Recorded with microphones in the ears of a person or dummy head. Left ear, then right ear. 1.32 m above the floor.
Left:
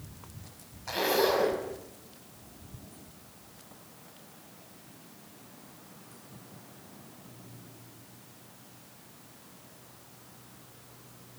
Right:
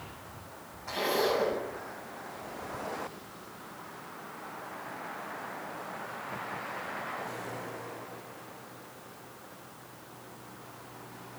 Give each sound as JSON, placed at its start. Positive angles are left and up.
{"t": 0.9, "sound": "a zipper", "side_deg": 15, "distance_m": 6.0}